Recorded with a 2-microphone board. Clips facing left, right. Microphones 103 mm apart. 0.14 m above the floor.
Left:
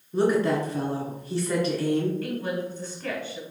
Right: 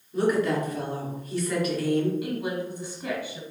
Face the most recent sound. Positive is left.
turn(degrees=-15)  # may be behind; listen again after turning